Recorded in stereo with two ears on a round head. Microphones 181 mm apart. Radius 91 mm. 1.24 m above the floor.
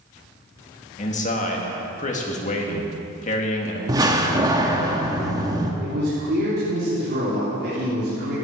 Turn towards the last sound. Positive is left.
turn(degrees=-60)  # may be behind; listen again after turning